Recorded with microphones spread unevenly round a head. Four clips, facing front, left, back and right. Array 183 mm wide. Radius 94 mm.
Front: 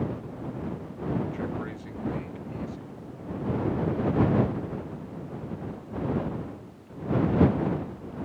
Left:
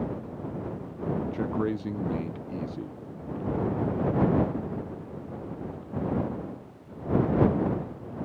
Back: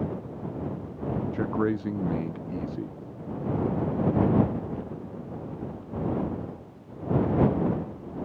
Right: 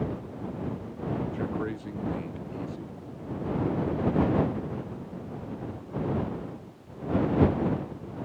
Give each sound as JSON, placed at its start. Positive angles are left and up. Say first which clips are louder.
{"t": 1.3, "sound": "a man speaking", "louder": "left 3 dB, back 7 dB", "azimuth_deg": 155}